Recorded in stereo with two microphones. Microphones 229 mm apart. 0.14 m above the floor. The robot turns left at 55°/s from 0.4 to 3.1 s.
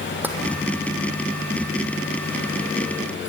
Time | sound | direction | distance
0.2 | tapping | 10° right (ahead or behind) | 3 m